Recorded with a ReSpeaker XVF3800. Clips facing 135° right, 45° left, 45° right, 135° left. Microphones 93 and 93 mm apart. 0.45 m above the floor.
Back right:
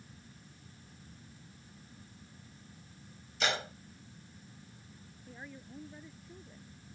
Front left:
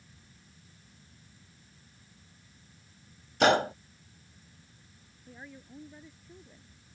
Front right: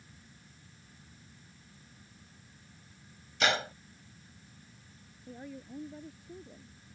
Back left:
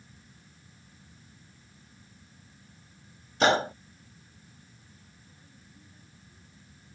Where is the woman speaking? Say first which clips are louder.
Front left 1 dB, front right 13 dB; 45° right.